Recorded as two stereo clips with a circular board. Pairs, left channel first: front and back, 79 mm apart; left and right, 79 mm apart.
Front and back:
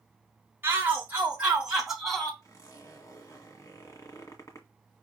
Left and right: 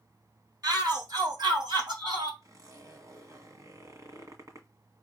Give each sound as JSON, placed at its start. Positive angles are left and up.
{"t": 0.6, "sound": "a shout", "azimuth_deg": -120, "distance_m": 3.0}
{"t": 2.4, "sound": "a zipper", "azimuth_deg": -45, "distance_m": 1.9}